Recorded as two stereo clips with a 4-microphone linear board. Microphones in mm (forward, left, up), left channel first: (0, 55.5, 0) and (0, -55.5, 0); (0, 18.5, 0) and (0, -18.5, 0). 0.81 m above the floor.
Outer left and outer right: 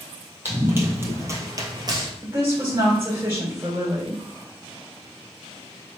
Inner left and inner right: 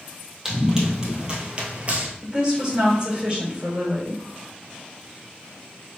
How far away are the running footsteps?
About 1.8 m.